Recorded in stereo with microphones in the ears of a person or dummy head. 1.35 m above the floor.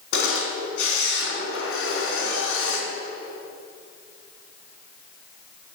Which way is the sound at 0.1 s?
75° left (ahead or behind).